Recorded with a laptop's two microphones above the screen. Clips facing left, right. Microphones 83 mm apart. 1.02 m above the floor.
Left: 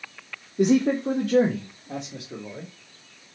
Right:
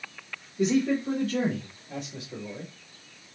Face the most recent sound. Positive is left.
turn(degrees=75)  # may be behind; listen again after turning